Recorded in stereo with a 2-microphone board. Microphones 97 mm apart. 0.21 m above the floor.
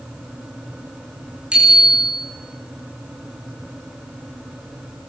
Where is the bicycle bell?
10° right (ahead or behind), 9.5 m.